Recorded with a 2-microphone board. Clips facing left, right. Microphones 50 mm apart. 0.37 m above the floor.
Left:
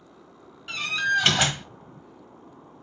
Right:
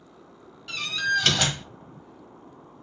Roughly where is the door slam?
Left.